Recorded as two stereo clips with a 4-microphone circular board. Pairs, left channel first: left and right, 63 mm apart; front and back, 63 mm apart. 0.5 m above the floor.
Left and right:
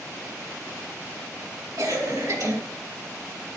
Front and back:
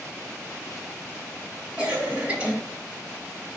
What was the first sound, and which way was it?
A cough, 105° right.